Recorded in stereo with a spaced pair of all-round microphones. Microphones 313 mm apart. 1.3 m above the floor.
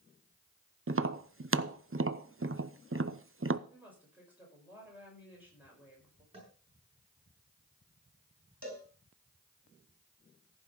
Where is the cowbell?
45° right (ahead or behind), 4.5 m.